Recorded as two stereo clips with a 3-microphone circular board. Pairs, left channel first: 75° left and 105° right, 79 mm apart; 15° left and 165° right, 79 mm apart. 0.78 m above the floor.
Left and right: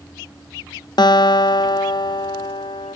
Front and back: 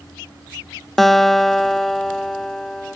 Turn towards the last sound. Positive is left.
turn(degrees=100)